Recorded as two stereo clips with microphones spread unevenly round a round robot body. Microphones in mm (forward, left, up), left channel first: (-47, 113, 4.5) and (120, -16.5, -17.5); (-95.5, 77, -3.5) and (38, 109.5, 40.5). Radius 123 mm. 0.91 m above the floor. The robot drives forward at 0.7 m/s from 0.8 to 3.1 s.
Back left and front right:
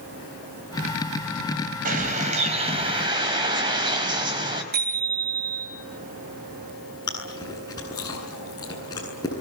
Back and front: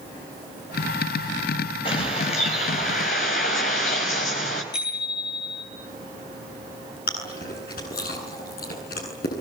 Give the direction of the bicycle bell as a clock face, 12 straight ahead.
3 o'clock.